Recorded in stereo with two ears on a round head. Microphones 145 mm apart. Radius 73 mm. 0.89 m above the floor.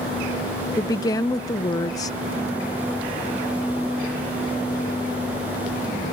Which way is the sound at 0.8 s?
20° left (ahead or behind).